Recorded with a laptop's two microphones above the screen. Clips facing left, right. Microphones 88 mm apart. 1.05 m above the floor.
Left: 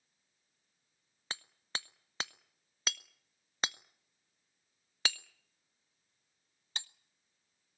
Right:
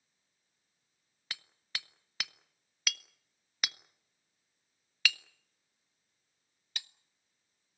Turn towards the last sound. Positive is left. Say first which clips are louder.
# left 2 dB
turn(degrees=30)  # may be behind; listen again after turning